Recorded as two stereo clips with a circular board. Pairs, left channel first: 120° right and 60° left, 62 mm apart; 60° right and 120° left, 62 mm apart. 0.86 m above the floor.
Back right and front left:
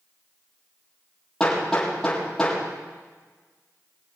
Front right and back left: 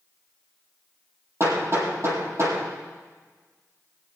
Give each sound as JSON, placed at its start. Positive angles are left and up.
{"t": 1.4, "sound": "hammering", "azimuth_deg": 165, "distance_m": 7.5}